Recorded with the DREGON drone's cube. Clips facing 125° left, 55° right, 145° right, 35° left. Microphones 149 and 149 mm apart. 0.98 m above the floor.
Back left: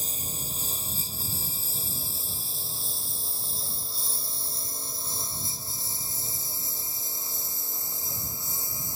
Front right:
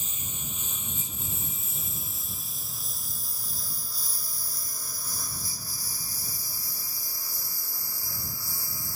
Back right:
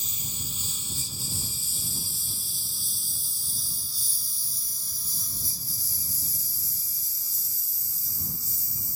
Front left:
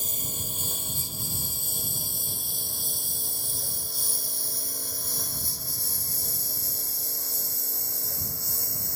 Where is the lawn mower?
70° left; by 9.0 s 55° left.